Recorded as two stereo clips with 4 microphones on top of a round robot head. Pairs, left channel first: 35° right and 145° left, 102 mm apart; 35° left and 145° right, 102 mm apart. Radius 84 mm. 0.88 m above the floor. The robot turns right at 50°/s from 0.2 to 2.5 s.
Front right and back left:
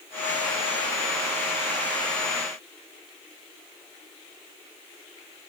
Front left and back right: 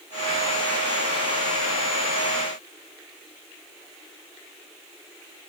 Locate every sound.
Only background noise.